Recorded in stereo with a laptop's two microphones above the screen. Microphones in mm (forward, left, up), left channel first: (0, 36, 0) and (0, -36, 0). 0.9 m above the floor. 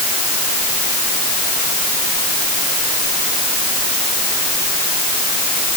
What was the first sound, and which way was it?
Only background noise.